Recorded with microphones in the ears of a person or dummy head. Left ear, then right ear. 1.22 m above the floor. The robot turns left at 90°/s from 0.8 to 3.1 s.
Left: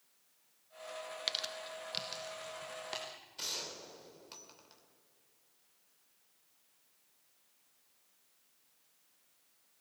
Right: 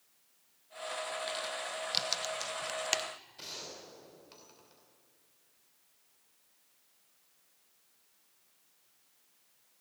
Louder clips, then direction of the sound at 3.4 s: Left 6 dB; 25° left (ahead or behind).